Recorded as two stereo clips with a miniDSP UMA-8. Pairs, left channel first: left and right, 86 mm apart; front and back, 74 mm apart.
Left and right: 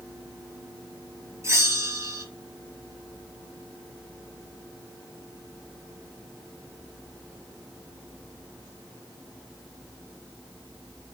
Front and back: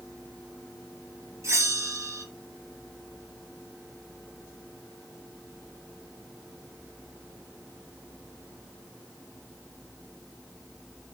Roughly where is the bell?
Behind right.